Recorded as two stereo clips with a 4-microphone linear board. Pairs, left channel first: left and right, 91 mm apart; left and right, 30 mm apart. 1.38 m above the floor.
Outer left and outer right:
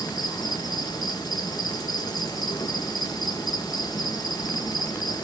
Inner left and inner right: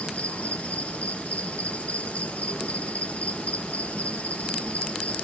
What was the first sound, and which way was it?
An insect, 45° left (ahead or behind).